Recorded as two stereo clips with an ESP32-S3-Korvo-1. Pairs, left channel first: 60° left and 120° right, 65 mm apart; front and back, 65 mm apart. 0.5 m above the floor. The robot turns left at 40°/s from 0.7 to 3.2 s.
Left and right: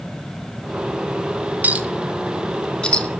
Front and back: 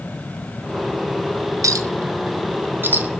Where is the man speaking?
I don't hear a man speaking.